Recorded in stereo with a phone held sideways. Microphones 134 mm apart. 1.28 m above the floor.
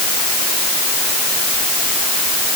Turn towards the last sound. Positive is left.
No sound to turn to.